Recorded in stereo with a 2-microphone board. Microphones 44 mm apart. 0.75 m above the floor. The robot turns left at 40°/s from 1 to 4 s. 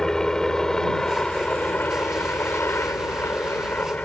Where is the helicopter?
165° left; by 4.1 s 45° left.